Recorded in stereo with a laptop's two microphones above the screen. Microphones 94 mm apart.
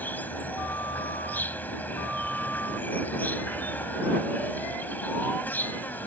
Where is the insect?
20° left (ahead or behind).